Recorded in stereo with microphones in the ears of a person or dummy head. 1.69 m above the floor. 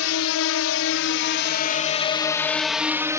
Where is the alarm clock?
No alarm clock in this recording.